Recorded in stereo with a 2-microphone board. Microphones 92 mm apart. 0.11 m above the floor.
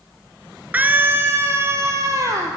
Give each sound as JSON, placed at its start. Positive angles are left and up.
{"t": 0.7, "sound": "a scream", "side_deg": -20, "distance_m": 1.3}